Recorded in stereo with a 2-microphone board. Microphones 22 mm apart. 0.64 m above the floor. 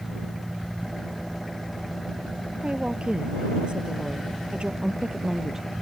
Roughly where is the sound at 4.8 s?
Centre.